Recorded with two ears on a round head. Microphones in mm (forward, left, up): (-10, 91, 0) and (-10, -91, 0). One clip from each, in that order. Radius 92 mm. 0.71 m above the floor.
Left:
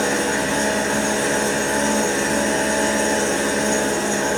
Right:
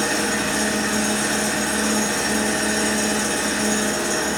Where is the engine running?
30° right (ahead or behind), 1.6 m.